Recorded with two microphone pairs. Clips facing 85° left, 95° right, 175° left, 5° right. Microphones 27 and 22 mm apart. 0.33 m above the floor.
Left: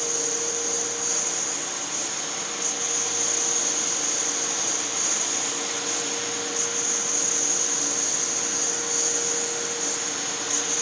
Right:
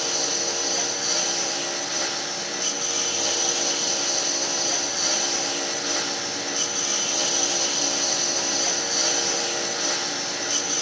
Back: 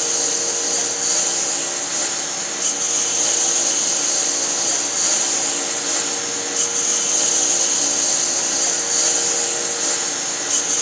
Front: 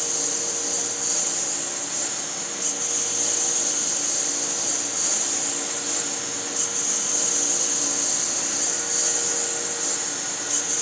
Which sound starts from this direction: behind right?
A lawn mower, at 0.0 s.